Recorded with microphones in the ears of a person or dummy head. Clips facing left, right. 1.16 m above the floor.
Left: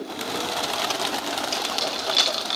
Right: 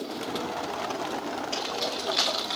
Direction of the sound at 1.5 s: 50° left (ahead or behind).